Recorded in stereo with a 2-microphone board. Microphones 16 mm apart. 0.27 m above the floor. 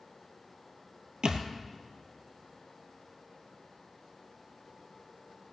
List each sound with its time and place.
1.2 s a thud: 65° right (ahead or behind), 1.4 m